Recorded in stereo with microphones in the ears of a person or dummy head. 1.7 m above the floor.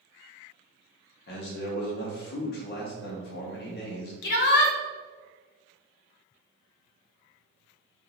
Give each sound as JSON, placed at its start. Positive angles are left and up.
{"t": 1.3, "sound": "a man speaking", "side_deg": 60, "distance_m": 0.9}
{"t": 4.2, "sound": "a shout", "side_deg": 65, "distance_m": 0.6}